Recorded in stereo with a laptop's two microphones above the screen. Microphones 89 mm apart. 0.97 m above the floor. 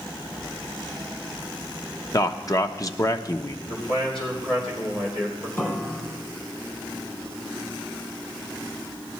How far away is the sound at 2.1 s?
About 0.9 m.